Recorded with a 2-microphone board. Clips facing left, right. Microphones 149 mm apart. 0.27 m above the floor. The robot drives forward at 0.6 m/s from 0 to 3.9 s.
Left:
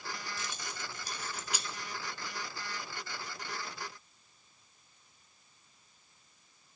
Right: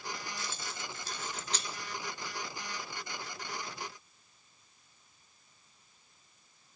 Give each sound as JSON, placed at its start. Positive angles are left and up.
{"t": 0.4, "sound": "keys jangling", "side_deg": 20, "distance_m": 0.6}